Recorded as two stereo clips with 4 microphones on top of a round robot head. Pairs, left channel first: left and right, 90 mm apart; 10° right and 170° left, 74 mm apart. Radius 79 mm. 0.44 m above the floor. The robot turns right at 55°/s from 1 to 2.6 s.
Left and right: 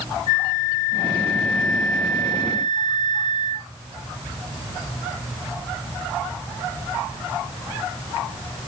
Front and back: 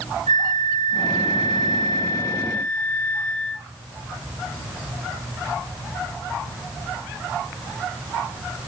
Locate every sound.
0.3 s a flute: 30° right, 4.5 m; by 3.7 s 55° left, 4.5 m